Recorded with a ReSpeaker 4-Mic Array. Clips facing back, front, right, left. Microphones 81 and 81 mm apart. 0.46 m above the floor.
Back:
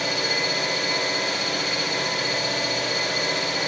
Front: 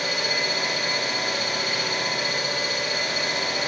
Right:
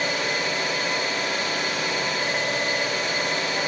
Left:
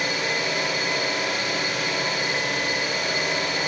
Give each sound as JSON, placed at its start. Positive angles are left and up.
{"t": 0.0, "sound": "an engine running", "azimuth_deg": 160, "distance_m": 9.5}